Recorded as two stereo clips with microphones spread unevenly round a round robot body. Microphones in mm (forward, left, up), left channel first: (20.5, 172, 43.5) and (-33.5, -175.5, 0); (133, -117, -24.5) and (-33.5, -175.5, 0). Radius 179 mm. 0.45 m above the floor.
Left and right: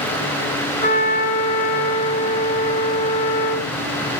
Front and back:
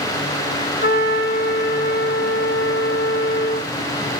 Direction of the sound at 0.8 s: 10° left.